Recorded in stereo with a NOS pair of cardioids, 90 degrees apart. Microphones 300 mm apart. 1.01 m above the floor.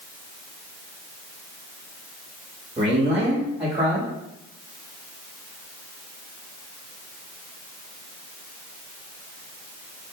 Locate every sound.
2.8 s a man speaking: 20° right, 1.5 m